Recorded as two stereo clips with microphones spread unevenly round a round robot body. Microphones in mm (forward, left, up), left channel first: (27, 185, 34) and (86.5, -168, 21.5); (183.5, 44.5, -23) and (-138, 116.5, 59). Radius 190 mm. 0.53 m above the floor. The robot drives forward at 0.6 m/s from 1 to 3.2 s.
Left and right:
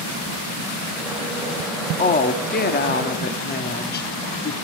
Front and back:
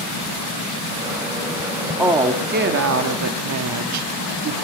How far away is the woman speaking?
About 0.9 m.